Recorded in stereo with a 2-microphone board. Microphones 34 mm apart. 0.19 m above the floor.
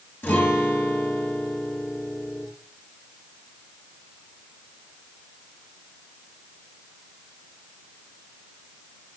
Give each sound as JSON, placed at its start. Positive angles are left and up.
{"t": 0.2, "sound": "a guitar", "side_deg": 70, "distance_m": 3.5}